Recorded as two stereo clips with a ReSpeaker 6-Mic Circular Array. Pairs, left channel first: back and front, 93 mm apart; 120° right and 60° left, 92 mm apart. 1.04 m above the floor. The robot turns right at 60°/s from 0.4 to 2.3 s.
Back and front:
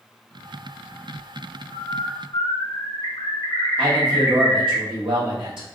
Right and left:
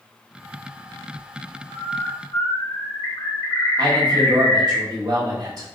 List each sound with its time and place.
1.7 s a bird: 165° left, 1.3 m; by 4.8 s 160° right, 1.3 m
3.8 s a man speaking: 15° left, 1.5 m